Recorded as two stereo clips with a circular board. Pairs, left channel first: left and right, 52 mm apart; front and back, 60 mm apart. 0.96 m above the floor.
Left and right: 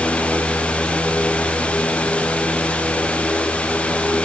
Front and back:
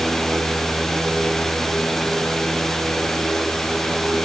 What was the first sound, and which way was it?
Only background noise.